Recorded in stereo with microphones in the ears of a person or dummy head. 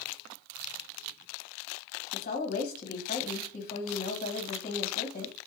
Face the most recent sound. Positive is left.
turn(degrees=45)  # may be behind; listen again after turning